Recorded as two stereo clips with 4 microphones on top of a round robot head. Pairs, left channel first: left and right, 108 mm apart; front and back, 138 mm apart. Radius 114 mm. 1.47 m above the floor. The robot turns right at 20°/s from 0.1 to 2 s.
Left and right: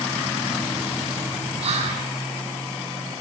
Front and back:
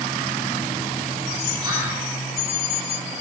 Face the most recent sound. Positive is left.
turn(degrees=-110)